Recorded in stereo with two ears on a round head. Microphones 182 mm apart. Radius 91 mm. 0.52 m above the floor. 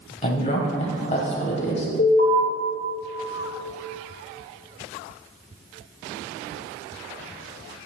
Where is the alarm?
45° left (ahead or behind), 2.5 m.